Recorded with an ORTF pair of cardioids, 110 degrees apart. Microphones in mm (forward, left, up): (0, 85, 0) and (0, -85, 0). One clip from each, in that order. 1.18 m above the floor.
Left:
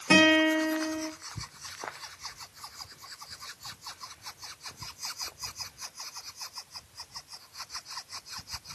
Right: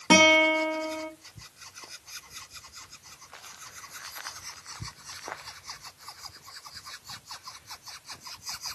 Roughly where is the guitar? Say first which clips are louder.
Right 3 dB; ahead.